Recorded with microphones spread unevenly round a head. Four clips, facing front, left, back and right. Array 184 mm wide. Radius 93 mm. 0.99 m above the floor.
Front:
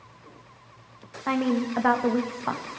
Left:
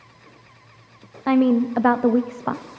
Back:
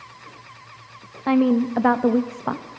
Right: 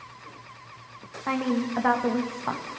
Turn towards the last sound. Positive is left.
turn(degrees=125)